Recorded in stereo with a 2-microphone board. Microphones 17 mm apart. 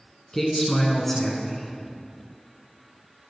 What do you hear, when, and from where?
0.3 s a man speaking: 15° left (ahead or behind), 1.1 m